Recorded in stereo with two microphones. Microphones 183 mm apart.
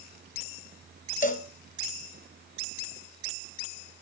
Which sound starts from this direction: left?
A cowbell, at 1.2 s.